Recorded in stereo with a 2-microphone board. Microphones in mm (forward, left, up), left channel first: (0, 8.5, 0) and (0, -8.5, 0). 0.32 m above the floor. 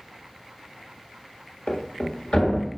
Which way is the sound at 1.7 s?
75° left (ahead or behind).